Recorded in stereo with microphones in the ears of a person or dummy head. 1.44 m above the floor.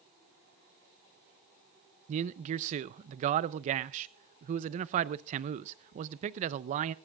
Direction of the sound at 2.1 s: 45° right (ahead or behind).